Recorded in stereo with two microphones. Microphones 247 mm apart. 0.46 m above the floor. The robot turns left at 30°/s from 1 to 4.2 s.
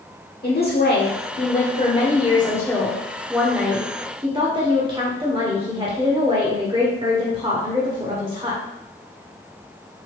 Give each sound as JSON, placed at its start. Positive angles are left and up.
{"t": 0.4, "sound": "a woman speaking", "azimuth_deg": 65, "distance_m": 1.4}